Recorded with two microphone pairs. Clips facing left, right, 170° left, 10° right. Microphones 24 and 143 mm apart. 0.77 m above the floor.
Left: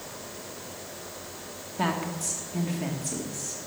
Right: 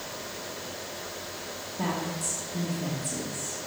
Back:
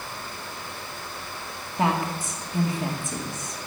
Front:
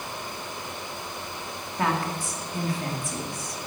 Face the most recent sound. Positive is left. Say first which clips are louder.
# left 3 dB, back 2 dB
turn(degrees=105)